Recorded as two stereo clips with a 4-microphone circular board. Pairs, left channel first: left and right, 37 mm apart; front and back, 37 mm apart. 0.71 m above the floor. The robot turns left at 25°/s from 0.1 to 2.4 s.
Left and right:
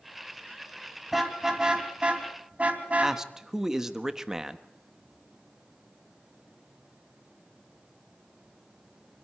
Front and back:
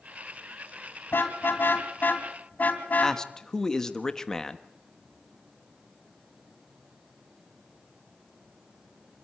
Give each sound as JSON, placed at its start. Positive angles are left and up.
{"t": 1.1, "sound": "a car horn", "azimuth_deg": -5, "distance_m": 2.5}
{"t": 3.0, "sound": "a man speaking", "azimuth_deg": -40, "distance_m": 1.0}